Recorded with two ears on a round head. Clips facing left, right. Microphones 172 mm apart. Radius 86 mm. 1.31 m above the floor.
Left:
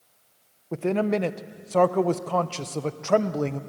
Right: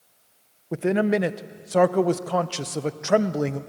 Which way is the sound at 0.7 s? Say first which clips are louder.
Right 2 dB; 10° right (ahead or behind).